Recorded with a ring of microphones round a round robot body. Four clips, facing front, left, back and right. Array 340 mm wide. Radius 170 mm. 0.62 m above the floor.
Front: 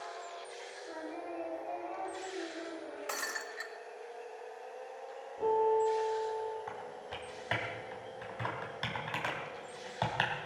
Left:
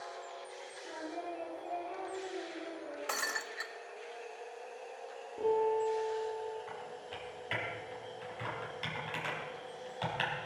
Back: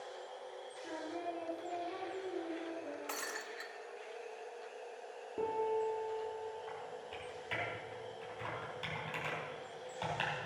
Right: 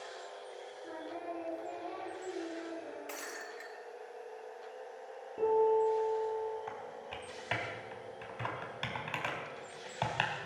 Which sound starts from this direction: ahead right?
Typing on a keyboard, at 6.7 s.